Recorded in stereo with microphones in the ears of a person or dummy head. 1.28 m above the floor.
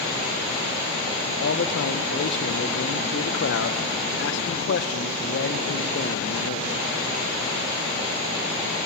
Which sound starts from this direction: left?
A man speaking, at 1.2 s.